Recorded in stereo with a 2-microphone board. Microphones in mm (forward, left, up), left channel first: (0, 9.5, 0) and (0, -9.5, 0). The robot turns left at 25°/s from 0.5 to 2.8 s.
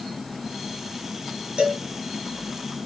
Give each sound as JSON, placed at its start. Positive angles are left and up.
{"t": 1.6, "sound": "a cowbell", "side_deg": -70, "distance_m": 3.0}